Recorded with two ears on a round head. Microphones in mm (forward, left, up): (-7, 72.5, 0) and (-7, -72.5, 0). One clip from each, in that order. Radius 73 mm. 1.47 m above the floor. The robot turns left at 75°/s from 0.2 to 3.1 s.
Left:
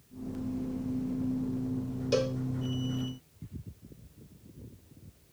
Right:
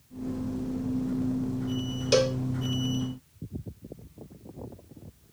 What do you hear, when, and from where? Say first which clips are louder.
2.1 s a cowbell: right 6 dB; 40° right (ahead or behind); by 2.4 s 20° right (ahead or behind)